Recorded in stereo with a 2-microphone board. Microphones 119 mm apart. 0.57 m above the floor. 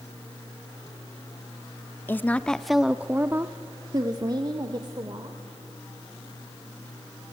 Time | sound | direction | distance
2.1 | a woman speaking | 20° left (ahead or behind) | 0.8 m